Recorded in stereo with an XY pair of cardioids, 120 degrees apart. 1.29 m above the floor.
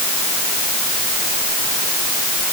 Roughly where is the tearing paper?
No tearing paper in this recording.